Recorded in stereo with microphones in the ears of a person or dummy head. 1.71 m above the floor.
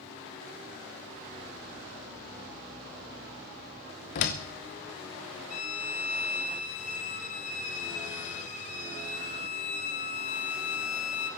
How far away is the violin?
About 1.5 m.